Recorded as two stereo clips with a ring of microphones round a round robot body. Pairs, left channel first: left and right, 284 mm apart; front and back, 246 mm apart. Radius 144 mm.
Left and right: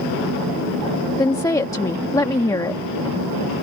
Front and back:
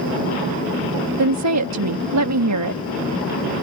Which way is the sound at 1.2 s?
170° left.